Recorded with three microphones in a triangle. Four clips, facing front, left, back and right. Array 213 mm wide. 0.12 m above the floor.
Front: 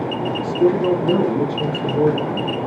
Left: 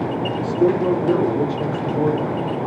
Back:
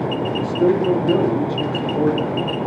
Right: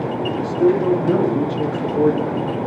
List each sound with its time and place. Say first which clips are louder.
0.2 s a man speaking: right 2 dB, front 1 dB; straight ahead, 1.8 m; by 2.5 s 75° right, 2 m